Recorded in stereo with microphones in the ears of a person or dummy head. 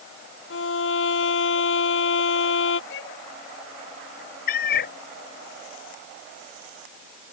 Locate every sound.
0.5 s a violin: 85° left
2.9 s a violin: 70° left (ahead or behind)
4.5 s a cat meowing: 60° left (ahead or behind)